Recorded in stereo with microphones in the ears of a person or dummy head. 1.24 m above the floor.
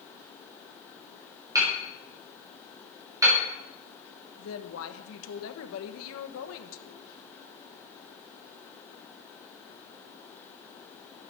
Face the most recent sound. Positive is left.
turn(degrees=70)  # may be behind; listen again after turning